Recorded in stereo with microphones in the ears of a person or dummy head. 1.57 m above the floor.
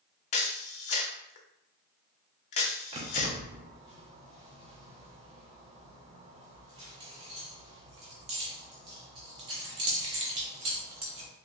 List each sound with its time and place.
0.3 s a camera shutter: 35° left (ahead or behind), 0.7 m
2.9 s keys jangling: 25° right (ahead or behind), 0.7 m